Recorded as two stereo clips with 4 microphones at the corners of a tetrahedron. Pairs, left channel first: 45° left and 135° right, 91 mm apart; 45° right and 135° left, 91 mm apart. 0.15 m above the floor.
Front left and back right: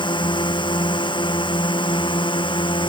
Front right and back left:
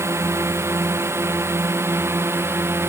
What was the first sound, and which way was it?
A drone, 75° left.